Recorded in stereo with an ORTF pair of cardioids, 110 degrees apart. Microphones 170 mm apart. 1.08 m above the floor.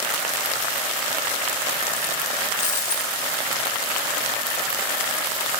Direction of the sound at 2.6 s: 50° left.